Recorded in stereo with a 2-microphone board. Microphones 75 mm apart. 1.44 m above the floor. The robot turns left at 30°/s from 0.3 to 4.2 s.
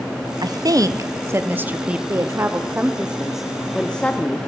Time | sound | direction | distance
0.4 | a woman speaking | 60° right (ahead or behind) | 0.6 m
2.1 | a woman speaking | 135° right | 0.5 m